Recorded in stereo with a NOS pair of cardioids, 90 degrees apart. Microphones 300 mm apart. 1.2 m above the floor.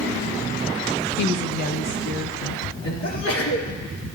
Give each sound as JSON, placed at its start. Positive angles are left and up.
{"t": 1.2, "sound": "a woman speaking", "azimuth_deg": 60, "distance_m": 0.7}
{"t": 3.0, "sound": "a sneeze", "azimuth_deg": 65, "distance_m": 2.0}